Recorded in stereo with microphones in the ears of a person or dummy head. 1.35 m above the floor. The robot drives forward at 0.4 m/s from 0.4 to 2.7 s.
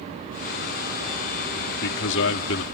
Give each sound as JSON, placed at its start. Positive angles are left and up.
{"t": 1.7, "sound": "a man speaking", "side_deg": 65}